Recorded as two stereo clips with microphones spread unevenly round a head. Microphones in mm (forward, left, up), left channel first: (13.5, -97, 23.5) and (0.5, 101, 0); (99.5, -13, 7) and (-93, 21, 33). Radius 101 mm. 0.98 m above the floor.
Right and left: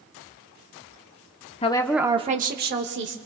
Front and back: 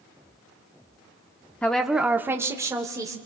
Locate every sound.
1.6 s a woman speaking: 65° right, 0.8 m; by 3.1 s 95° left, 1.8 m